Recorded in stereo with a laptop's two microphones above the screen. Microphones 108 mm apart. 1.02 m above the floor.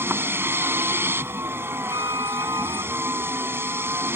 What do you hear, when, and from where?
0.0 s a vehicle: 20° right (ahead or behind)
1.9 s a violin: 45° right (ahead or behind)